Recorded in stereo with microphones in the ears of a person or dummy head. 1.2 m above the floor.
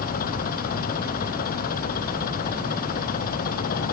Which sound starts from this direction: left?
An engine running, at 0.0 s.